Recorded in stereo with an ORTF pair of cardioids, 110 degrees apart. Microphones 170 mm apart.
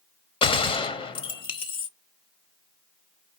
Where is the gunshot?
35° left, 0.8 m.